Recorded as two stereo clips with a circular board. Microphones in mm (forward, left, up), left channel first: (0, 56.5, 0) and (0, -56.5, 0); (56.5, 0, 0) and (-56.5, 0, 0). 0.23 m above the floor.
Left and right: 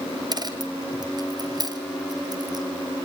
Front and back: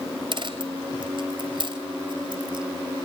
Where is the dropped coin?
140° right, 2 m.